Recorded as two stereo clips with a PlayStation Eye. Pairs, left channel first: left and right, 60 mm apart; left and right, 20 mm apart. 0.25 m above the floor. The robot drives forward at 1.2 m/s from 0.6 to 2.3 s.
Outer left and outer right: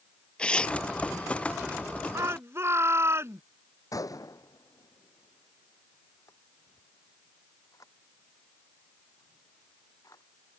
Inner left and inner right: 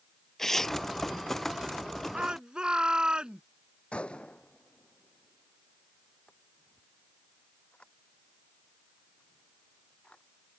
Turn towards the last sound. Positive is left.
turn(degrees=75)  # may be behind; listen again after turning